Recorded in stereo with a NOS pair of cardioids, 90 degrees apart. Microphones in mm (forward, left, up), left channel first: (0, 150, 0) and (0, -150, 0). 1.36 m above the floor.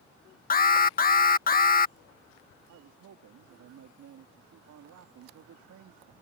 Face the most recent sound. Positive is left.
turn(degrees=-70)